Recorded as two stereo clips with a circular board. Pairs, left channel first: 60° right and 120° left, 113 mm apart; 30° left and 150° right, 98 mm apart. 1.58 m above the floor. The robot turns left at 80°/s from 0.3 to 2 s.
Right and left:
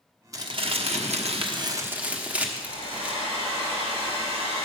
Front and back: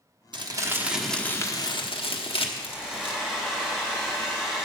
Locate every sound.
0.3 s crumpling: 175° left, 1.1 m; by 3.1 s 45° left, 1.1 m
2.6 s a hair dryer: 130° left, 3.5 m